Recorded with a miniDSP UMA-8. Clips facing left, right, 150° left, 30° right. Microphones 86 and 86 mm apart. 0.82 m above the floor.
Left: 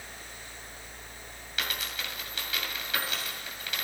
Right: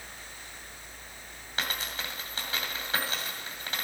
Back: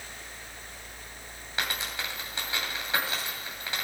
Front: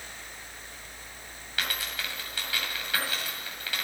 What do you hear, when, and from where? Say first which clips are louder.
1.6 s a dropped coin: right 1 dB, back 1 dB; 145° right, 2 m